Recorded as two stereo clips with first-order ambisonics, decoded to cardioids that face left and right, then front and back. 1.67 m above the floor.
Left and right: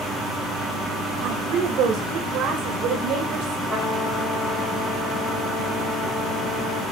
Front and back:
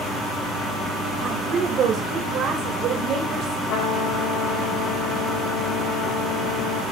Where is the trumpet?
5° left, 5.5 m.